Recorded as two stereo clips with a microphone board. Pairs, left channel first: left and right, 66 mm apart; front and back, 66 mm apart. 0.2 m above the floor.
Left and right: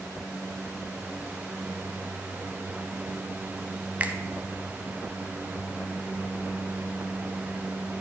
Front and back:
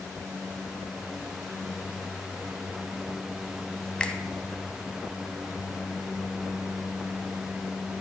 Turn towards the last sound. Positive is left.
turn(degrees=-60)